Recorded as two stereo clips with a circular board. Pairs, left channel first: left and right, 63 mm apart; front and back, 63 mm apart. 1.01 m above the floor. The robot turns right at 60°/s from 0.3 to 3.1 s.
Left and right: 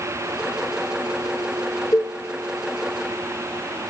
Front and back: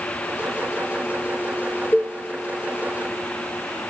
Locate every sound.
1.9 s a cowbell: 50° left, 0.7 m; by 2.2 s 65° left, 0.7 m